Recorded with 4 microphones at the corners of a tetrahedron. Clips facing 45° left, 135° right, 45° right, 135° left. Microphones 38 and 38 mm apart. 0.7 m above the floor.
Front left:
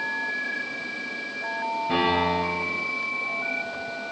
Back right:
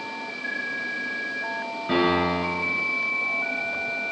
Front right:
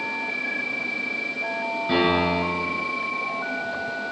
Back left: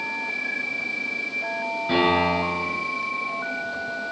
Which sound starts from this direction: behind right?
A piano, at 1.9 s.